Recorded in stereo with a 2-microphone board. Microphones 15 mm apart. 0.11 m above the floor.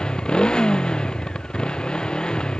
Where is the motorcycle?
75° left (ahead or behind).